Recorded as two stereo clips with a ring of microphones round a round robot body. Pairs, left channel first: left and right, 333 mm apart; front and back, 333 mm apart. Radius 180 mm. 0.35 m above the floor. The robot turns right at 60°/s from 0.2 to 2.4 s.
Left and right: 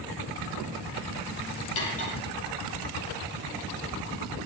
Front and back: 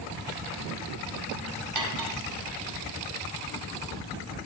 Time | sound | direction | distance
1.8 | cutlery clinking | 145° left | 6.5 m